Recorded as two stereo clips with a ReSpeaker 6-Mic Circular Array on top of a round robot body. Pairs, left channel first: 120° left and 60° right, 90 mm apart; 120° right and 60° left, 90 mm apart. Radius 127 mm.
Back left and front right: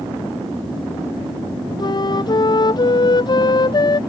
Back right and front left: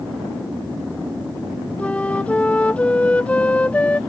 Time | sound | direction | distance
1.8 | a flute | 165° left | ?